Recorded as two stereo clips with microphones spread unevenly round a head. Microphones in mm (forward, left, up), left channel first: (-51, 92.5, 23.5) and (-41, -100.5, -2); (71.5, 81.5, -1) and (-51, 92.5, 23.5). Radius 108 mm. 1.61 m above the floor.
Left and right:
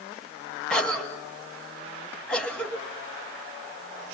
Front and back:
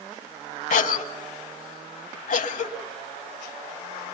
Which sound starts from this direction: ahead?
A cough, at 0.7 s.